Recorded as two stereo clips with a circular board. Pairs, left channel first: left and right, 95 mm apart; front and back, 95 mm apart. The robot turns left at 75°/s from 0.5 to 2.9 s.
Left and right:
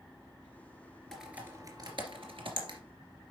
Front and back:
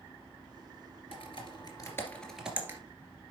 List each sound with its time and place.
1.1 s typing on a keyboard: 5° left, 2.5 m; by 2.8 s 125° right, 2.5 m